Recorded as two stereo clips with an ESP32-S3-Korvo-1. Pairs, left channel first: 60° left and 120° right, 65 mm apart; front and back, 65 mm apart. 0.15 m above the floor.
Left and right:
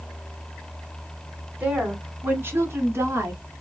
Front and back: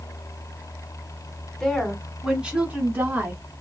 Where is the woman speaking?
75° right, 1.2 m; by 3.4 s 140° right, 1.6 m.